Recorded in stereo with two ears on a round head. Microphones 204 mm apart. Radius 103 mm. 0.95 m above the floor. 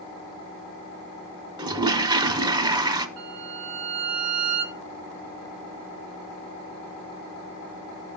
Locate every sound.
1.6 s a toilet flushing: 20° right (ahead or behind), 0.8 m
3.2 s a violin: 70° right (ahead or behind), 5 m